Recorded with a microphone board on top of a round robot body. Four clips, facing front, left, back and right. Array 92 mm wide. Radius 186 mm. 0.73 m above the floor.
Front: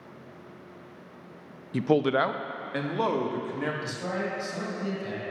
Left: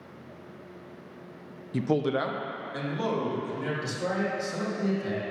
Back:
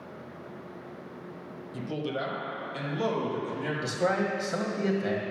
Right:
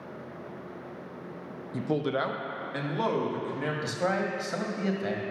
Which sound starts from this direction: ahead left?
A man speaking, at 1.7 s.